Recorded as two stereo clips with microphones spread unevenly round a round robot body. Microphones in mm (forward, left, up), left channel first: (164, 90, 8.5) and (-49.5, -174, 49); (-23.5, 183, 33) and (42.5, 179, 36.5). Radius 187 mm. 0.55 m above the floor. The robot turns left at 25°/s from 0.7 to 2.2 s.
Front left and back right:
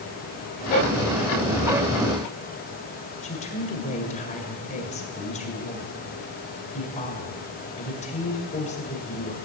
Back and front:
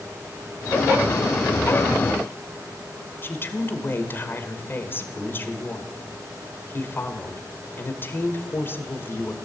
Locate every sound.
3.2 s a woman speaking: 120° left, 1.8 m